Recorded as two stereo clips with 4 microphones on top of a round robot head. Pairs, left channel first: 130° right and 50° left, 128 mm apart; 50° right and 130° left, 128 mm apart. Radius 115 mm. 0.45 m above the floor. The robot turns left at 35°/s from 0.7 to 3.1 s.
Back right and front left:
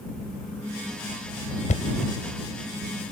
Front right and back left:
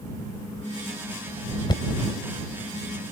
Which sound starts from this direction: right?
Knocking, at 1.7 s.